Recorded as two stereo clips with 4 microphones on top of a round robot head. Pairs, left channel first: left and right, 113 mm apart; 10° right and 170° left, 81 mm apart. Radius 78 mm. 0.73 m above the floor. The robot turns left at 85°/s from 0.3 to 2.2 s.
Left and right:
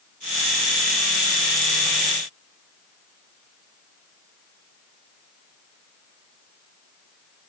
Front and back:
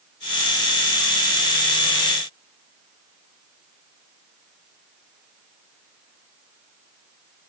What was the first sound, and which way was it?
Only background noise.